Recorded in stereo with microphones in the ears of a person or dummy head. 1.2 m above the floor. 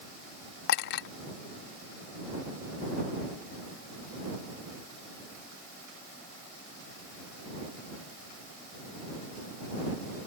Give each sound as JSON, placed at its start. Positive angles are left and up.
{"t": 0.7, "sound": "a clink", "side_deg": 60}